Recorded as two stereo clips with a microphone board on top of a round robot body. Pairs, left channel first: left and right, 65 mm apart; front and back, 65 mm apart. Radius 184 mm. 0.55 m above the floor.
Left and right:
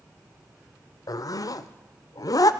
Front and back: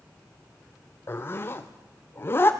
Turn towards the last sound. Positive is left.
turn(degrees=60)